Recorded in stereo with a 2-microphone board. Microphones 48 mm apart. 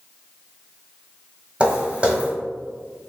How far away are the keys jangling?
No keys jangling in this recording.